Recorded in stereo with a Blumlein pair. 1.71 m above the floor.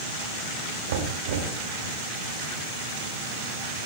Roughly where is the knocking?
Ahead right.